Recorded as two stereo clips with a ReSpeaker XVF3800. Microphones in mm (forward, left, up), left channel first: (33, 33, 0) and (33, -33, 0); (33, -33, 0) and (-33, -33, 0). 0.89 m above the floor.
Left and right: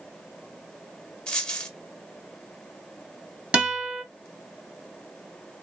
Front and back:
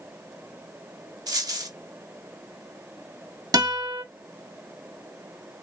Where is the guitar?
165° right, 2 m.